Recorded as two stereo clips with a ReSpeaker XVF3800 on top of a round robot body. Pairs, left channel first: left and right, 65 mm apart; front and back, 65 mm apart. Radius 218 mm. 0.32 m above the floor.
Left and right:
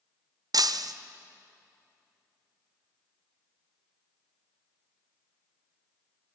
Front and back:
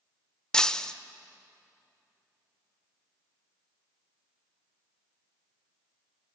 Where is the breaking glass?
80° right, 0.8 m.